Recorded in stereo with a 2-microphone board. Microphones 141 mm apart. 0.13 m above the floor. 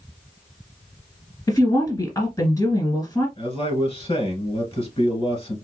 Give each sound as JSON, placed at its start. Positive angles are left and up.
{"t": 1.5, "sound": "a woman speaking", "side_deg": 20, "distance_m": 1.5}
{"t": 3.4, "sound": "a man speaking", "side_deg": 40, "distance_m": 2.0}